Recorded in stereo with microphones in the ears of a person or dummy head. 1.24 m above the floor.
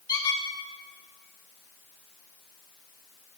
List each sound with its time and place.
0.1 s a squeak: 20° left (ahead or behind), 1.6 m